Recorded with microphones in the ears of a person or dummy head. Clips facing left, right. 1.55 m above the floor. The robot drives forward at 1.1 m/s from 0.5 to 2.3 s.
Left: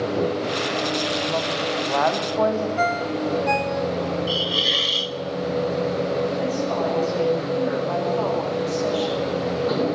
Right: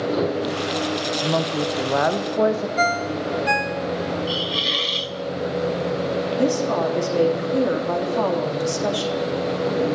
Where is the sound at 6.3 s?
50° right (ahead or behind), 3.5 m.